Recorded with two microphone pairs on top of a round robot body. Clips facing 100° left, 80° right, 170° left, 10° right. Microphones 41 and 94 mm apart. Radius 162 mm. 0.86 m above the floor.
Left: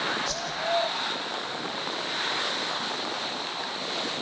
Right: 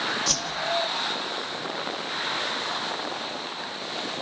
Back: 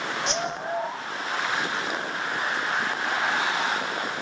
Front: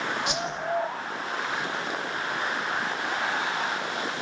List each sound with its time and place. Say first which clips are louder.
0.3 s a whoosh: right 2 dB, back 2 dB; 95° right, 2.5 m